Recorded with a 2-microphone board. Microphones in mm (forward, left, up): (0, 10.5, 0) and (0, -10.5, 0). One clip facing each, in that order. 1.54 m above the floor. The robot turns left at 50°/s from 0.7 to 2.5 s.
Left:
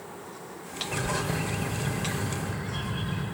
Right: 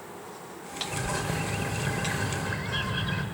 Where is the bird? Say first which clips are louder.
Left 2 dB; 25° left, 1.7 m; by 3.2 s 55° right, 1.7 m.